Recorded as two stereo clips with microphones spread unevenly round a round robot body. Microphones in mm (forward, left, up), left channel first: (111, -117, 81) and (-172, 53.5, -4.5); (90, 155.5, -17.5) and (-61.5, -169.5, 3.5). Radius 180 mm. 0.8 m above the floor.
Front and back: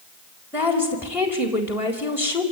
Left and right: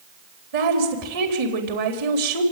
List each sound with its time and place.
0.5 s a woman speaking: 130° right, 4 m